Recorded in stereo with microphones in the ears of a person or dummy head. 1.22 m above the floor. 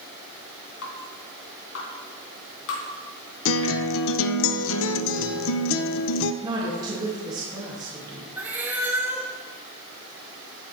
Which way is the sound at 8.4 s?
10° right (ahead or behind).